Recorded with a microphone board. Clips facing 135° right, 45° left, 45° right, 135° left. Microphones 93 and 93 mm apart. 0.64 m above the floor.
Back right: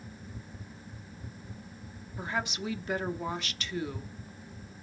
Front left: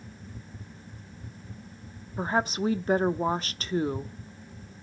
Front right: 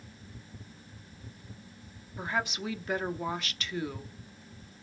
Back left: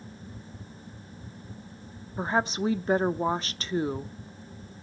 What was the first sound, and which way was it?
A woman speaking, 85° left.